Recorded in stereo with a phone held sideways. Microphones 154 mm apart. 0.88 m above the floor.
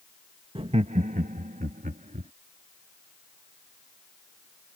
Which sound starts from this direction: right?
Laughter, at 0.6 s.